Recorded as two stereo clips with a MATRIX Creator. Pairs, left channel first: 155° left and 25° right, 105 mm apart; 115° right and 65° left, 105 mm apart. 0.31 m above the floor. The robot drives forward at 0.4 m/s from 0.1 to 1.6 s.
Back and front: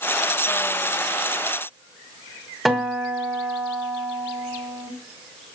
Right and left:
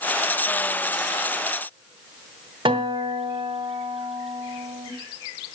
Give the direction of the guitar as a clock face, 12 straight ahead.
10 o'clock.